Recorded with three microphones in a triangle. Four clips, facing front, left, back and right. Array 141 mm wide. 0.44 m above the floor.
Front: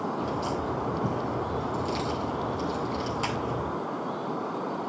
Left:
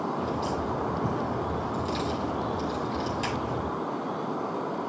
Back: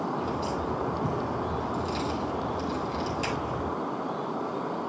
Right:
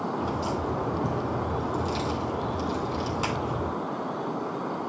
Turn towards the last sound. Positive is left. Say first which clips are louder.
# right 1 dB, even
turn(degrees=-70)